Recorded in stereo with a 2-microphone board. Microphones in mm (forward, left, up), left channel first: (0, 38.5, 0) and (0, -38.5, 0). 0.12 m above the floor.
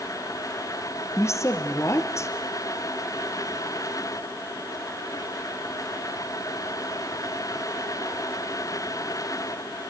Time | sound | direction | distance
1.2 | a woman speaking | 40° left (ahead or behind) | 3 m